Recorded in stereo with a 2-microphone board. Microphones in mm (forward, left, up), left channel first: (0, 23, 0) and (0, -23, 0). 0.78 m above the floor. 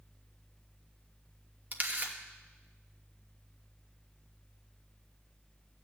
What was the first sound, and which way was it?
A camera shutter, 40° right (ahead or behind).